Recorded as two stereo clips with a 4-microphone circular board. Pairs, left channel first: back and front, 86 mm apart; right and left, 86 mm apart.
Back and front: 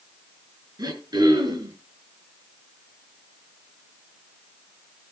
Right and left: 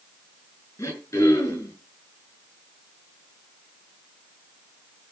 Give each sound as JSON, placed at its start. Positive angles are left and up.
{"t": 0.8, "sound": "throat clearing", "azimuth_deg": -40, "distance_m": 6.0}